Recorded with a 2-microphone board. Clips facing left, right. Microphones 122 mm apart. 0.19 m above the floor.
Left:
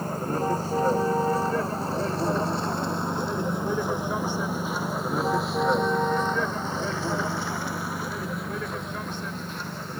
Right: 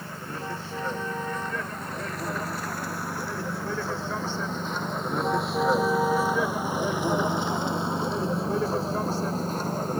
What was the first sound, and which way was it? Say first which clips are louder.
A vehicle: left 9 dB; 40° left (ahead or behind).